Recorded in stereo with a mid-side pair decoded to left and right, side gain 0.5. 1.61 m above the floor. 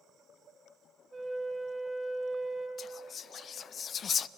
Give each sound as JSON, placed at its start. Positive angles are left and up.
{"t": 1.1, "sound": "a flute", "azimuth_deg": -10, "distance_m": 5.0}
{"t": 2.8, "sound": "whispering", "azimuth_deg": 45, "distance_m": 0.7}